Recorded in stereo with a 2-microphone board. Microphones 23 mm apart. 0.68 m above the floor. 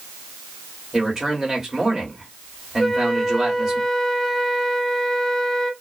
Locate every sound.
0.9 s a man speaking: 20° right (ahead or behind), 1.9 m
2.8 s a flute: 10° left (ahead or behind), 0.7 m